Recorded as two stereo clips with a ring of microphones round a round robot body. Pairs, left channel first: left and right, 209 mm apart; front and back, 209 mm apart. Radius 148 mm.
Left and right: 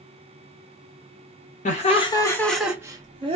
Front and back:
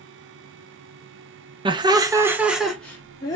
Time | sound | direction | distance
1.6 | laughter | 125° left | 0.8 m